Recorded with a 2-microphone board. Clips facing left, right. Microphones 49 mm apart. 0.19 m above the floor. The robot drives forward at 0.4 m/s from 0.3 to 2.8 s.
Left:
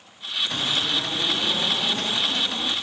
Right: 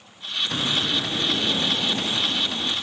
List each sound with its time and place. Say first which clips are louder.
0.5 s a bird: right 1 dB; 15° right (ahead or behind), 0.6 m; by 2.7 s 5° right (ahead or behind), 1.4 m